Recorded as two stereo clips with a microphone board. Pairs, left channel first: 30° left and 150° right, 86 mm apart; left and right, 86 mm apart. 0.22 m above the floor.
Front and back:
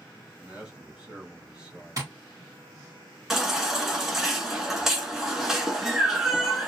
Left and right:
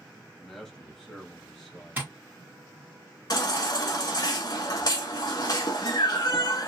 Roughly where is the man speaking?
Behind.